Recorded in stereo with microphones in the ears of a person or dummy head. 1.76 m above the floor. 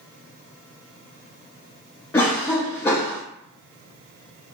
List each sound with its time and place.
2.1 s a cough: 20° left (ahead or behind), 0.5 m